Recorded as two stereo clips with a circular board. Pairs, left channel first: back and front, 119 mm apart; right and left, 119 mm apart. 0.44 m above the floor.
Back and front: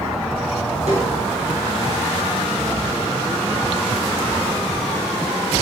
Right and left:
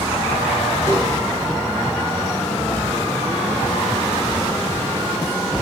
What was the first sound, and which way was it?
A snare drum, 20° right.